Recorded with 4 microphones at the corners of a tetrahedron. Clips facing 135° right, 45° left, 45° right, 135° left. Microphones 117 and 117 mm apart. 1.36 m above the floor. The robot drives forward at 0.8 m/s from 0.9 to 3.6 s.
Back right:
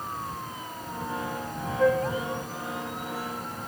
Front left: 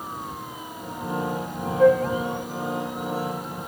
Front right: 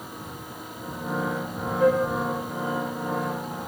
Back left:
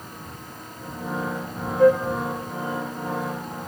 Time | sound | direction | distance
1.8 | a flute | 120° left | 1.3 m